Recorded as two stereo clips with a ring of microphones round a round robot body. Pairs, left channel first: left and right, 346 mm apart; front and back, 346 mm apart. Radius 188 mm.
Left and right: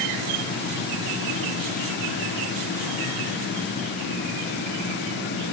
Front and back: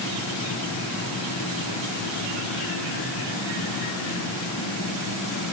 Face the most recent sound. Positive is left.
No sound to turn to.